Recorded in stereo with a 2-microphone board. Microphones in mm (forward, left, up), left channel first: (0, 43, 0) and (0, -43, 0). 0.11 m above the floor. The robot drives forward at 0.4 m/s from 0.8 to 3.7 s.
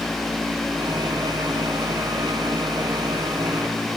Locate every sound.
Only background noise.